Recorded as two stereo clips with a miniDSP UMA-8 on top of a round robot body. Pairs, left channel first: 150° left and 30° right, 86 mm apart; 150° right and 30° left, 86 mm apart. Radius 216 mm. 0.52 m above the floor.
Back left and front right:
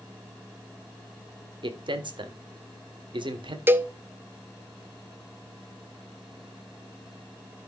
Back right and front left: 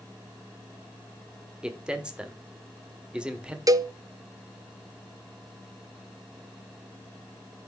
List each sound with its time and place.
1.6 s a man speaking: 50° right, 2.0 m
3.7 s a cowbell: 25° left, 1.1 m